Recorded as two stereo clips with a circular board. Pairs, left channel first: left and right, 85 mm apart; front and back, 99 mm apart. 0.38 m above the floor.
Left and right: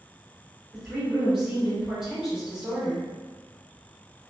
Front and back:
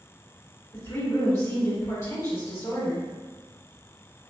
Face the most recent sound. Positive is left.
turn(degrees=-15)